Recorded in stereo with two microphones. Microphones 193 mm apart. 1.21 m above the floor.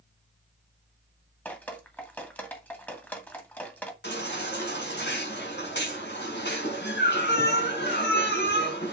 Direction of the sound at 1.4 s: 10° left (ahead or behind).